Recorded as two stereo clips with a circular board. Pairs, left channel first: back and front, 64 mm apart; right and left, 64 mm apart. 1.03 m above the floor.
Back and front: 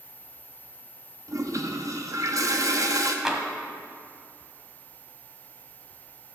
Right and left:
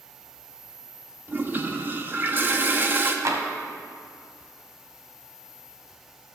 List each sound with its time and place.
1.3 s a toilet flushing: 35° left, 0.8 m
3.2 s tapping: 80° left, 1.2 m